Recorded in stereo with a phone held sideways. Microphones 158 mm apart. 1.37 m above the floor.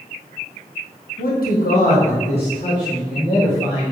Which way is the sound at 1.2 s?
65° left (ahead or behind).